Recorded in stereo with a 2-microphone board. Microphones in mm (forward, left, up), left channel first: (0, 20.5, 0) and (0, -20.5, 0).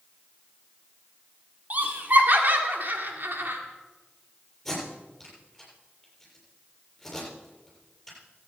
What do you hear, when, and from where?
1.7 s laughter: 40° right (ahead or behind), 2.5 m; by 3.6 s 55° right (ahead or behind), 2 m
4.7 s tape being pulled: 5° left (ahead or behind), 7.5 m